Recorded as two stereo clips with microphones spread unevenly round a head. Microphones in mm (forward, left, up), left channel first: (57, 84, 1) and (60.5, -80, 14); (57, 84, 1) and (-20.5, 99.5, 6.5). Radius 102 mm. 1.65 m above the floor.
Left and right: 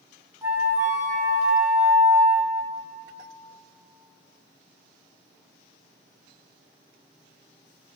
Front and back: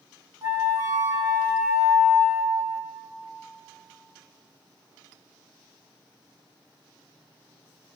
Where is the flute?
155° right, 1.2 m.